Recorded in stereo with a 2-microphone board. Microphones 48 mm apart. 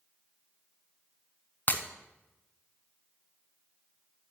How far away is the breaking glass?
About 0.8 m.